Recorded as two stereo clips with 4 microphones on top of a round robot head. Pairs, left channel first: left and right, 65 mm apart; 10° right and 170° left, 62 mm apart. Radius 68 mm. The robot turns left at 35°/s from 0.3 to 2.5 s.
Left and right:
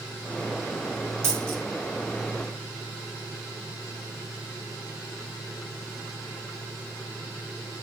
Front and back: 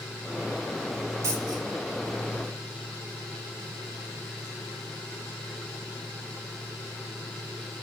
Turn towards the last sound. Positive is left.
turn(degrees=180)